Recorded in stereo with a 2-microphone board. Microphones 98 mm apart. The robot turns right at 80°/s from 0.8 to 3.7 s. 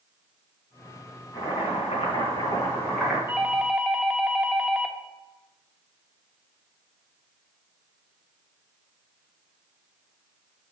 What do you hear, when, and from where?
1.3 s boiling: 40° left, 3.5 m; by 3.2 s 170° right, 3.5 m
3.3 s a doorbell: 20° right (ahead or behind), 0.9 m; by 5.0 s 10° right (ahead or behind), 0.9 m